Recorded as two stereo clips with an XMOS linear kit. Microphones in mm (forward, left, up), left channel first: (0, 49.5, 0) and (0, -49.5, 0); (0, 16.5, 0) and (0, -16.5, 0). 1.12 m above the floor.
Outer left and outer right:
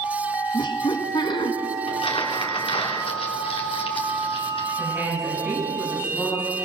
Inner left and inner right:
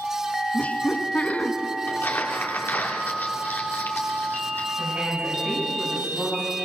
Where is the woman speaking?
10° right (ahead or behind), 8 m.